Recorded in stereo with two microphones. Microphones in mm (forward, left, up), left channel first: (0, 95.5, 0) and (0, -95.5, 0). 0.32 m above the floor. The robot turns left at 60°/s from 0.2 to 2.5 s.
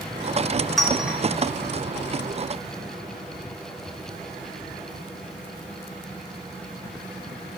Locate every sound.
0.8 s a clink: centre (ahead or behind), 0.6 m; by 1.2 s 5° right (ahead or behind), 0.6 m